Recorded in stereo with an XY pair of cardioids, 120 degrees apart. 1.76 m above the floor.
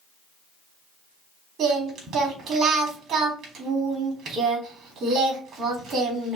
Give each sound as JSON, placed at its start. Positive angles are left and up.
{"t": 1.6, "sound": "singing", "azimuth_deg": -60, "distance_m": 3.5}